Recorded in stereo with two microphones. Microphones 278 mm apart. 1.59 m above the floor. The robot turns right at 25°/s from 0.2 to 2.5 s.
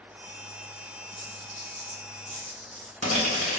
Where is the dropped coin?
35° right (ahead or behind), 1.7 m; by 3.6 s 25° right (ahead or behind), 1.7 m.